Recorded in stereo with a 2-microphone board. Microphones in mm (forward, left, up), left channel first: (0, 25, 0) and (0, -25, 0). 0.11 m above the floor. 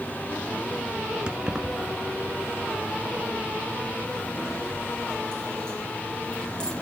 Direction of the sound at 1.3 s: 20° right (ahead or behind).